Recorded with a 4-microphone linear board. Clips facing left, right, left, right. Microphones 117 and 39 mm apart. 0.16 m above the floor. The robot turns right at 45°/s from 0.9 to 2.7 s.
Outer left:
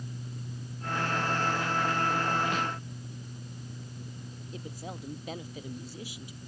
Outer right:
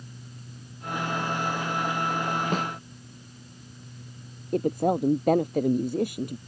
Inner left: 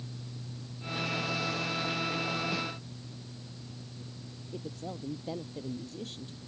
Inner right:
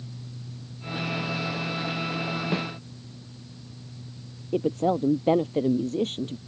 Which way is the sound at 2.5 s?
40° right (ahead or behind).